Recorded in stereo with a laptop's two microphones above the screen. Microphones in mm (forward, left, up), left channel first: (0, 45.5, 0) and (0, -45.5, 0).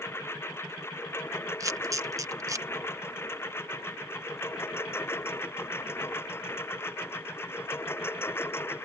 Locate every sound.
0.0 s a lawn mower: 25° left (ahead or behind)
1.6 s a camera shutter: 35° right (ahead or behind)